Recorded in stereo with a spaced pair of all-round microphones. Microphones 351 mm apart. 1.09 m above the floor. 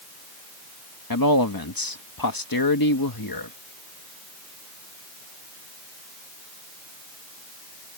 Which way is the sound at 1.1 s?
75° left (ahead or behind).